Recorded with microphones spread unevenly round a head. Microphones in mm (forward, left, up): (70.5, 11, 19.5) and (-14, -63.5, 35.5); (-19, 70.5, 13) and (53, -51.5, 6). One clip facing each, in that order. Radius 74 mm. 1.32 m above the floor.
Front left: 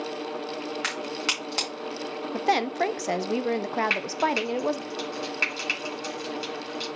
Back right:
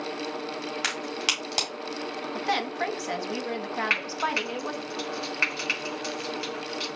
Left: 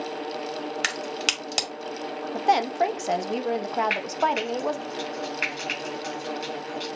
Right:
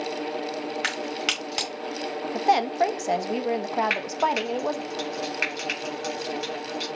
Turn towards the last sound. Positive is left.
turn(degrees=-20)